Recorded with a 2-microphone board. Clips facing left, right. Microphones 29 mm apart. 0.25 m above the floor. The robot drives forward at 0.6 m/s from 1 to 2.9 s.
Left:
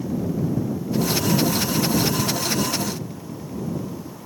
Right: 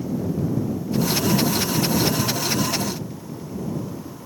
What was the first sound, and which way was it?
Only background noise.